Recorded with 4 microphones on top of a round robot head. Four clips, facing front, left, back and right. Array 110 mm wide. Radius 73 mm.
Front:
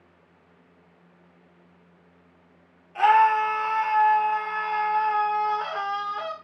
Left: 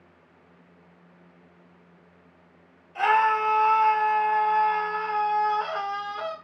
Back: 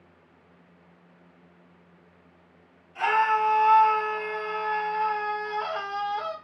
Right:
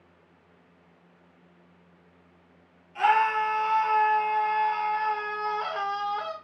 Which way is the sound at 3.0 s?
25° left.